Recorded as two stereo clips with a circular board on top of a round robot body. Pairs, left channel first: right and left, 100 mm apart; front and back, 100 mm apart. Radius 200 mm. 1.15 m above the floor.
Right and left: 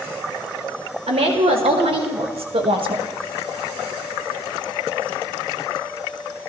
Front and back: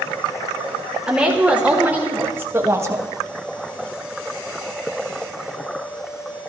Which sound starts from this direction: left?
A woman speaking, at 1.1 s.